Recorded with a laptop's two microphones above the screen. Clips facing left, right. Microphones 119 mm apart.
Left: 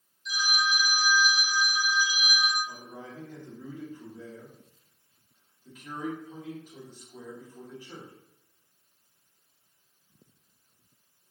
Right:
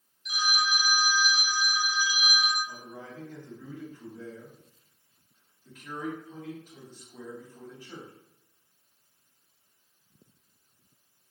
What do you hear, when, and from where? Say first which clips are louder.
0.2 s a phone ringing: even; 70° right (ahead or behind), 0.6 m
2.7 s a man speaking: even; 15° left (ahead or behind), 1.6 m